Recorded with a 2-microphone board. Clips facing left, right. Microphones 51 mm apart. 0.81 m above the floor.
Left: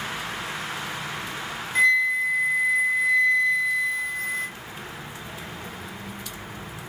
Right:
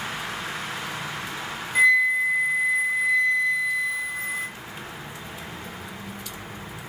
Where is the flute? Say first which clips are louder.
Right 1 dB; 10° right (ahead or behind), 0.5 m.